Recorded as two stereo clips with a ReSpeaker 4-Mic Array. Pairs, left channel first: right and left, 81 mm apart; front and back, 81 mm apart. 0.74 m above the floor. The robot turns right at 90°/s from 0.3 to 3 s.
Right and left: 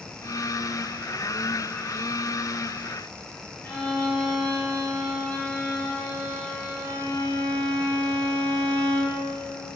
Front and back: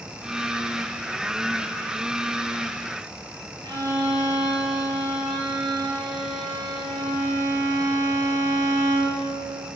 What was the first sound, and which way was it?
A violin, 160° right.